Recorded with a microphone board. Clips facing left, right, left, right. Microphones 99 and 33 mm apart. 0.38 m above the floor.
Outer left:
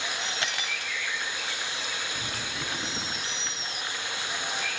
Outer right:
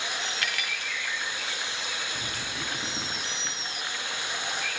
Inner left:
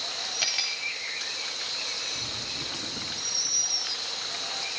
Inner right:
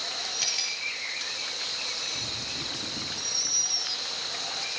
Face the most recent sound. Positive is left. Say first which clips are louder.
# even, inner left 4 dB
turn(degrees=25)  # may be behind; listen again after turning